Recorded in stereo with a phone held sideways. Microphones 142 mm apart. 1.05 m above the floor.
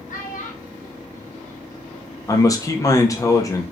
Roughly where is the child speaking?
Left.